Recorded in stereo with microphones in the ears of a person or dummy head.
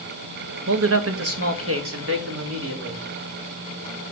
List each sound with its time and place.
0.7 s a man speaking: 75° right (ahead or behind), 1.1 m; by 3.0 s 60° right (ahead or behind), 3 m